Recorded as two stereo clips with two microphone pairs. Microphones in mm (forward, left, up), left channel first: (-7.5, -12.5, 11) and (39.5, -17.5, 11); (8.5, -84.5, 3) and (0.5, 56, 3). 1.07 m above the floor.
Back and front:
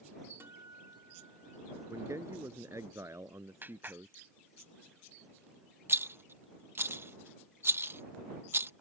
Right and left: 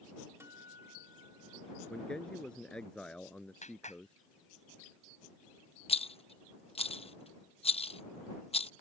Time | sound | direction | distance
0.4 | a guitar | 20° left | ?
1.9 | a man speaking | 5° right | ?
3.6 | a clap | 55° right | ?
5.9 | a rattle | 40° right | ?